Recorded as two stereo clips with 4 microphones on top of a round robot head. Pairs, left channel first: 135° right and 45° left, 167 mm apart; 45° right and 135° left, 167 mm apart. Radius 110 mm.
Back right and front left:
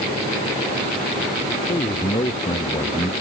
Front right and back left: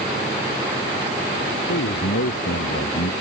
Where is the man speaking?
70° right.